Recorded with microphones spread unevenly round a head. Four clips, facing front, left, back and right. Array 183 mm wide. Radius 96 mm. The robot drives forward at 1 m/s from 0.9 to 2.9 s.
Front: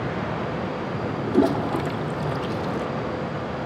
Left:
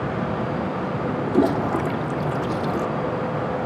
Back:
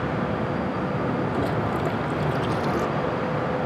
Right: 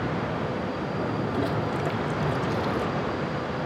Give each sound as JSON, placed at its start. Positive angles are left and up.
{"t": 1.3, "sound": "a toilet flushing", "azimuth_deg": 45}